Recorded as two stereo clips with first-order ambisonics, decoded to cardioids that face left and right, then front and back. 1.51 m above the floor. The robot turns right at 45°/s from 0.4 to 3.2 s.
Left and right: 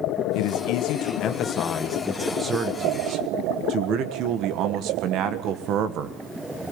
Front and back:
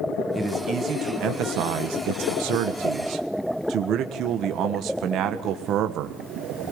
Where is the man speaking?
100° left, 1.3 m; by 6.2 s 130° right, 1.3 m.